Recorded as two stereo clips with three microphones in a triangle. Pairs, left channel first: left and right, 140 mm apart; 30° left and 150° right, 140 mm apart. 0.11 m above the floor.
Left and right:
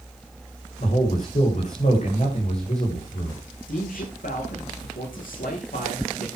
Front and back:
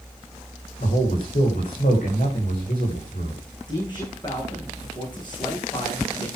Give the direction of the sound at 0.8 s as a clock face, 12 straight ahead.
10 o'clock.